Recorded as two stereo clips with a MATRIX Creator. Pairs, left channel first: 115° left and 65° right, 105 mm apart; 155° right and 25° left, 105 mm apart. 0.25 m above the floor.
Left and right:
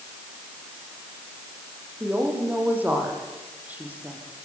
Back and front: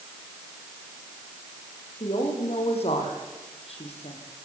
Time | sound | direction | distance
2.0 | a woman speaking | 140° right | 8 m